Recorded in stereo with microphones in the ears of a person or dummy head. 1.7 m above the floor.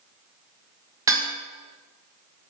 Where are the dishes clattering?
20° right (ahead or behind), 1.6 m.